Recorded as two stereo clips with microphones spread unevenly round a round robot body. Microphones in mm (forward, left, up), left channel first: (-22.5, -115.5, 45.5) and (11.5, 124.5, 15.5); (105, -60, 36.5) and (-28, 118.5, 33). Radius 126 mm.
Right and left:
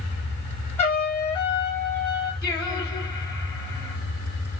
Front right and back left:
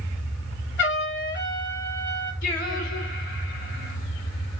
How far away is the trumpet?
About 2.5 m.